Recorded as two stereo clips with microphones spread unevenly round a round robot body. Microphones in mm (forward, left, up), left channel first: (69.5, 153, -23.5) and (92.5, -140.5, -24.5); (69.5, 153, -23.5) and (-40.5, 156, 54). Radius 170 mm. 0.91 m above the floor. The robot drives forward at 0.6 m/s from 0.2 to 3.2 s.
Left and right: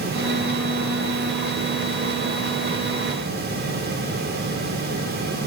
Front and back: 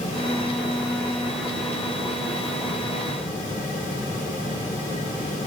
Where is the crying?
No crying in this recording.